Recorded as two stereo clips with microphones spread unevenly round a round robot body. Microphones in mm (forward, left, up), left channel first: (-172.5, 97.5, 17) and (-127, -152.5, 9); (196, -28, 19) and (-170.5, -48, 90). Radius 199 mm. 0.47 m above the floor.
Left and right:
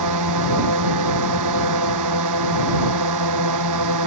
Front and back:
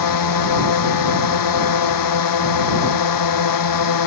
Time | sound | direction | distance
0.0 | a drone | 35° right | ?